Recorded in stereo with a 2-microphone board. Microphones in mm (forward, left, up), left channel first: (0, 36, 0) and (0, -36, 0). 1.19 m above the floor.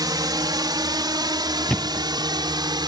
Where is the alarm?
I don't hear an alarm.